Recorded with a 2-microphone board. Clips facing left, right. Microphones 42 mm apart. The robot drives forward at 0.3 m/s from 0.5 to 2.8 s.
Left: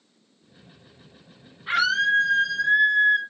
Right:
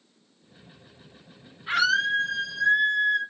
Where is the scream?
25° left (ahead or behind), 1.6 m.